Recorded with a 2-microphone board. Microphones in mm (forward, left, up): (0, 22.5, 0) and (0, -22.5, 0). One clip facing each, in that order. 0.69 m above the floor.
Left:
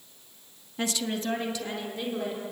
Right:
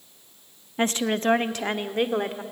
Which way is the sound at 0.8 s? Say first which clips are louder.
Right 6 dB; 35° right (ahead or behind).